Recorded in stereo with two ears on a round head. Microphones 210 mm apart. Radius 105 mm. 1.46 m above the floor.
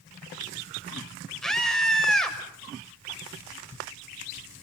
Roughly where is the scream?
Centre.